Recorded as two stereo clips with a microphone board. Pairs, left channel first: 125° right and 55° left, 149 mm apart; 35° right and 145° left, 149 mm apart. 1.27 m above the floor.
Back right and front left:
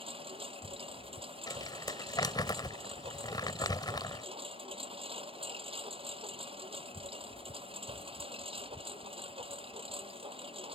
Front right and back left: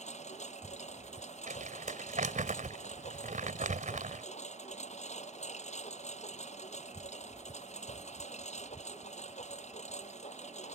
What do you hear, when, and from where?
0.0 s a lawn mower: 5° left
1.5 s crumpling: 175° left